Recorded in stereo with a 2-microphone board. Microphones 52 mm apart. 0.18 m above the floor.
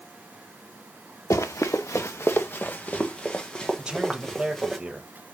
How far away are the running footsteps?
About 1.5 m.